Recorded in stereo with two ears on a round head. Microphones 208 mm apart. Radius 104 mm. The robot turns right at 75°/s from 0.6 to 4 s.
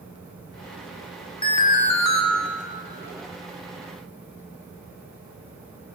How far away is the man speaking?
I don't hear a man speaking.